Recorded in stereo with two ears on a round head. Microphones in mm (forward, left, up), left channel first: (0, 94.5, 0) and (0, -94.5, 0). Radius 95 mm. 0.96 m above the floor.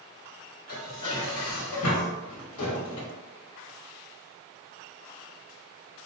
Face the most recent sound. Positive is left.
turn(degrees=75)  # may be behind; listen again after turning